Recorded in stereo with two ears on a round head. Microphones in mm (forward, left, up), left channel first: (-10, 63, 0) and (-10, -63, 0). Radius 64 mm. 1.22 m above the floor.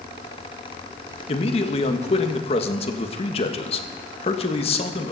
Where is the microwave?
I don't hear a microwave.